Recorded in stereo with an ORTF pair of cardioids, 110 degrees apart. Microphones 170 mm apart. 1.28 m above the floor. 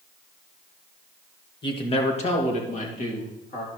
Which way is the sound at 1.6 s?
30° left.